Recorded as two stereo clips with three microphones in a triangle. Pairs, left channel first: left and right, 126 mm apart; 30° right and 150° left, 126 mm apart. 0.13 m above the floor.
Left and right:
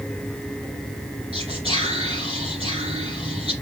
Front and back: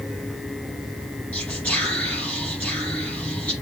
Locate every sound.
1.3 s whispering: 110° right, 2.5 m